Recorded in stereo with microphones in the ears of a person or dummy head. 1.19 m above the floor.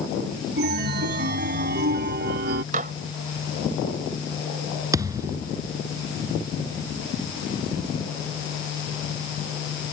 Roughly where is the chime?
Right.